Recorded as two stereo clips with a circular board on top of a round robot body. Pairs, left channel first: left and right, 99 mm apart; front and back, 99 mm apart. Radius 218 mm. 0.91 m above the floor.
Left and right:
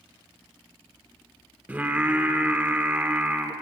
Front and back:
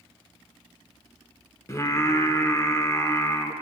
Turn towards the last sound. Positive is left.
turn(degrees=-30)